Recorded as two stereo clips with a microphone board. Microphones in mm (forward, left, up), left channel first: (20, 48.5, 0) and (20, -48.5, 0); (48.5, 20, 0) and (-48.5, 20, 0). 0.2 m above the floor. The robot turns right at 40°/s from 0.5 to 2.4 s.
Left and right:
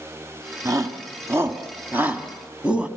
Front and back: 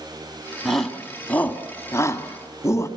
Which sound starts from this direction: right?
A shout, at 0.7 s.